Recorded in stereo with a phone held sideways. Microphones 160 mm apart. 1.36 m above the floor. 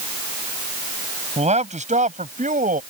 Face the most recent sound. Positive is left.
turn(degrees=-55)  # may be behind; listen again after turning